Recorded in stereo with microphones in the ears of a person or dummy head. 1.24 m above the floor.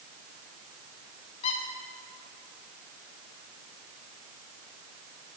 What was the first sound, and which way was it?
A squeak, 35° left (ahead or behind).